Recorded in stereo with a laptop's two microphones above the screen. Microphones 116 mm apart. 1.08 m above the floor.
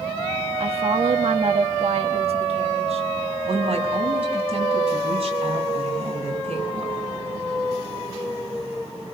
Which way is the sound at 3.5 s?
55° right (ahead or behind).